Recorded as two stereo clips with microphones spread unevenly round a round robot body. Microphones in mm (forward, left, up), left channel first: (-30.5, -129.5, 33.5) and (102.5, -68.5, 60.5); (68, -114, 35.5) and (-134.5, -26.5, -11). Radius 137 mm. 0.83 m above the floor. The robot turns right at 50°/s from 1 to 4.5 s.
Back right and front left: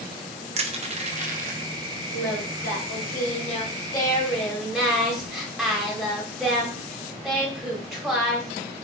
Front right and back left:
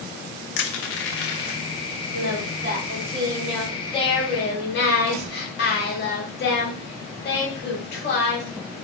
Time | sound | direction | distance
0.6 | crushing | 5° right | 0.6 m
2.1 | singing | straight behind | 1.5 m